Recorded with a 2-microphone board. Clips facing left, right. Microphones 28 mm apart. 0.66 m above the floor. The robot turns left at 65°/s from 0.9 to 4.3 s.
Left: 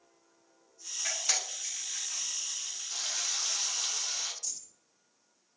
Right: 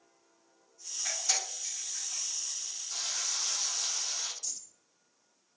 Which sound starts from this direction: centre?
Frying, at 2.9 s.